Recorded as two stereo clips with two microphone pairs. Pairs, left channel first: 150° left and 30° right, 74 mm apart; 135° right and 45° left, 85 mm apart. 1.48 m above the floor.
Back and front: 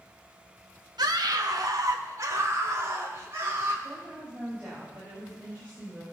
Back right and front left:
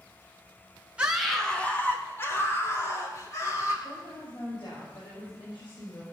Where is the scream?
30° right, 1.1 m; by 3.7 s 90° right, 4.5 m.